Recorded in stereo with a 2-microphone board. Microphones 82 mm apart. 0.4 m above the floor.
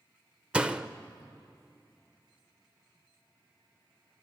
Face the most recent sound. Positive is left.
turn(degrees=-10)  # may be behind; listen again after turning